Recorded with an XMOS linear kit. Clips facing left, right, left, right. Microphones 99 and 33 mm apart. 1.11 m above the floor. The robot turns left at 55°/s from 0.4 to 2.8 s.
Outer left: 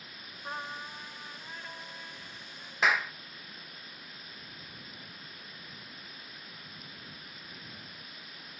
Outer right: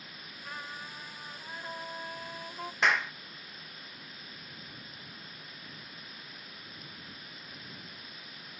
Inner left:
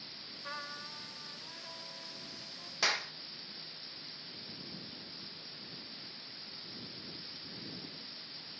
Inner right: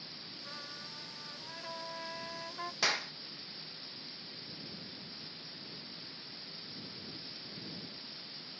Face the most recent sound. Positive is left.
turn(degrees=5)  # may be behind; listen again after turning